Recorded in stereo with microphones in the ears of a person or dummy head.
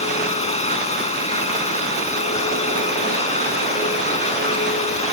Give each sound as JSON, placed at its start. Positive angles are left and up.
{"t": 0.0, "sound": "a machine running", "side_deg": 35}